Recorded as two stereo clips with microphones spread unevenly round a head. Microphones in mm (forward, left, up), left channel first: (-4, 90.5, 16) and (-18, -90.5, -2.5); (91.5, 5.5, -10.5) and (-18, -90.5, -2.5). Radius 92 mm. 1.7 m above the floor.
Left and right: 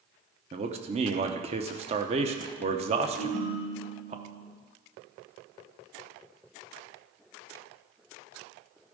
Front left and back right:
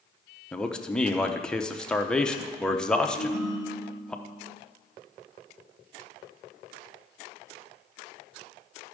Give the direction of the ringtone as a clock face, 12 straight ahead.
2 o'clock.